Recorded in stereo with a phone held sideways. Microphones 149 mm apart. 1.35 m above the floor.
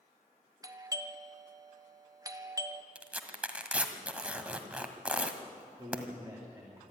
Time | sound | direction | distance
0.6 | a doorbell | 25° right (ahead or behind) | 1.1 m
3.0 | tearing paper | 10° right (ahead or behind) | 1.6 m
5.8 | a man speaking | 20° right (ahead or behind) | 2.5 m